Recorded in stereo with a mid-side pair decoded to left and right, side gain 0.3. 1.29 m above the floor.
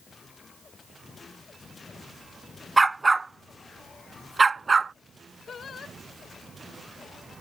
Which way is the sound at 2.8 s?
30° right.